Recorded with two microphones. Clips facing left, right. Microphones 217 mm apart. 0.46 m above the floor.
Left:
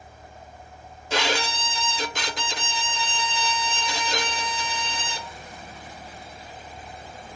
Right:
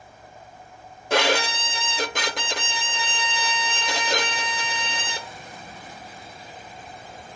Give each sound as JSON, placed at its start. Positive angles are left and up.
{"t": 1.1, "sound": "a violin", "side_deg": -60, "distance_m": 0.5}